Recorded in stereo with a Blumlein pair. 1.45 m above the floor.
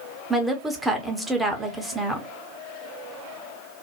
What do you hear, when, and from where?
0.3 s a woman speaking: 5° right, 0.7 m